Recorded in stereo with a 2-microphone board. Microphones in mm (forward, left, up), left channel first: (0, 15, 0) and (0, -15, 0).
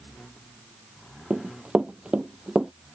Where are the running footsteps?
40° right (ahead or behind); by 2.7 s 25° right (ahead or behind).